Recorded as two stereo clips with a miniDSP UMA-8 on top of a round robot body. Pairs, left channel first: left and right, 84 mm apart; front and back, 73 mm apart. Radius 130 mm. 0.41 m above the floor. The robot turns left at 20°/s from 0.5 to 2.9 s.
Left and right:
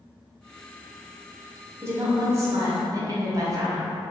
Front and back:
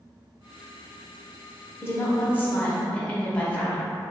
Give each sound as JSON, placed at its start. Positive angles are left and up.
{"t": 1.8, "sound": "a woman speaking", "azimuth_deg": -45, "distance_m": 1.0}